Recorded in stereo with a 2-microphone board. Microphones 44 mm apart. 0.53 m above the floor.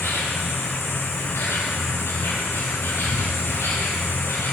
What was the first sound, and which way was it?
An insect, 85° left.